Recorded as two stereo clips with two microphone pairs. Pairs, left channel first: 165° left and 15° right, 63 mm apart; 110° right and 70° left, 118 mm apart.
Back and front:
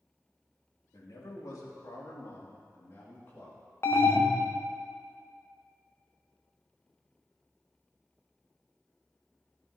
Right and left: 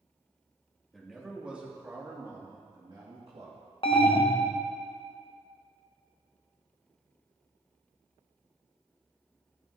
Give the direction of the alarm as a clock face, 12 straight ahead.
5 o'clock.